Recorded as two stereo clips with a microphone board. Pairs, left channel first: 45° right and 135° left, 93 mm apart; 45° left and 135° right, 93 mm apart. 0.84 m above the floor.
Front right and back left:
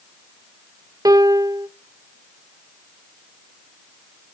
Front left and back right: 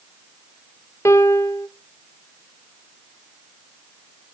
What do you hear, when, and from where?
1.1 s a piano: 95° left, 0.8 m